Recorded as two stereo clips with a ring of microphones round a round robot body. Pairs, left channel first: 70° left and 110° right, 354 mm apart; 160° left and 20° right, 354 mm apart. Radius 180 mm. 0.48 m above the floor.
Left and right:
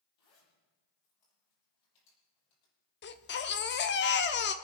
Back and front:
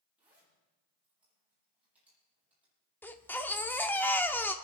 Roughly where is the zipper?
Ahead left.